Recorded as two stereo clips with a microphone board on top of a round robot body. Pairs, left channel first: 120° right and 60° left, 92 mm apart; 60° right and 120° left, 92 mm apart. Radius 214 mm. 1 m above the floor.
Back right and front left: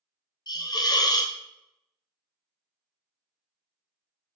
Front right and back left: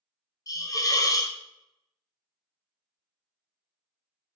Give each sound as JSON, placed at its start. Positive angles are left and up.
{"t": 0.5, "sound": "a hiss", "azimuth_deg": -95, "distance_m": 0.5}